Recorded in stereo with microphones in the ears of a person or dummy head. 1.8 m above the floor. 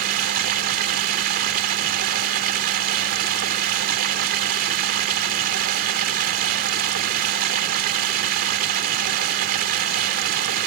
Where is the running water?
55° right (ahead or behind).